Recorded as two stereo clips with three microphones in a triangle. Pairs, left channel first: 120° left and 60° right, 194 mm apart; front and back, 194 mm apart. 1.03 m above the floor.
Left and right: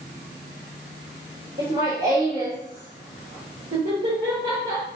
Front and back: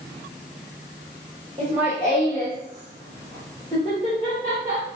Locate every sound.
1.6 s laughter: 115° right, 1.6 m; by 4.8 s 50° right, 1.8 m